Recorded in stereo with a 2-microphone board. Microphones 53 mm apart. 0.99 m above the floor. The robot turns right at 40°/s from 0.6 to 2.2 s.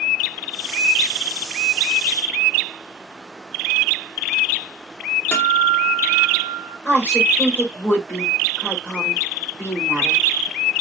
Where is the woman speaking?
35° left (ahead or behind), 3 m.